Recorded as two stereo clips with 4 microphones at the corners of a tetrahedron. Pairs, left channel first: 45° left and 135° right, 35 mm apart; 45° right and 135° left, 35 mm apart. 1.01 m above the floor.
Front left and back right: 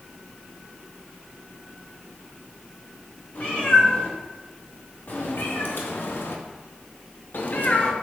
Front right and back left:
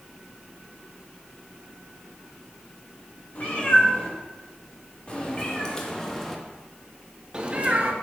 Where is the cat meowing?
Straight ahead, 2.5 m; by 7.9 s 95° left, 0.9 m.